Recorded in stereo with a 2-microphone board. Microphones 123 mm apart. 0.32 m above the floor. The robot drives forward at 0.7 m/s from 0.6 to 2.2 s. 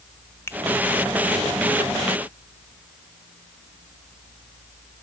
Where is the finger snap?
20° left (ahead or behind), 0.7 m.